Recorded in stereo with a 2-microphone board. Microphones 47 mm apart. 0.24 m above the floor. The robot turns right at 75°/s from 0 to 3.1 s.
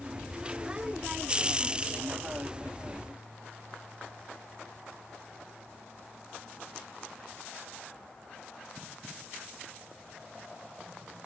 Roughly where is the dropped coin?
I don't hear a dropped coin.